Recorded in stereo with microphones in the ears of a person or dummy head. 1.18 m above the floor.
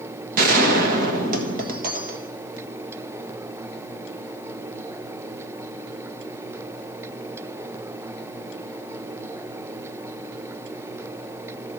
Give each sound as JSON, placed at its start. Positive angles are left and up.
{"t": 0.4, "sound": "a gunshot", "side_deg": -45, "distance_m": 1.3}